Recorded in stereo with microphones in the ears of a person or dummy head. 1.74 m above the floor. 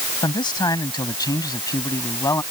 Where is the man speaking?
20° left (ahead or behind); by 2.4 s 15° left (ahead or behind).